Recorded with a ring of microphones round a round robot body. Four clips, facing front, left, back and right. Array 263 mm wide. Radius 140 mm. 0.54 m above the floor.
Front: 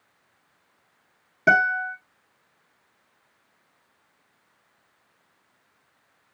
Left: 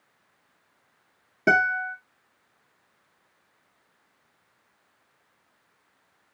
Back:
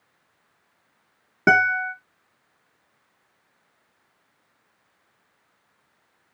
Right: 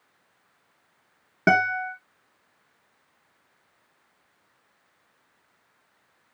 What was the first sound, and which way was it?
A guitar, 140° right.